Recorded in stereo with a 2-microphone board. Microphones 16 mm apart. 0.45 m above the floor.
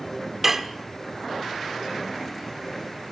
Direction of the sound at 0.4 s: 30° right (ahead or behind).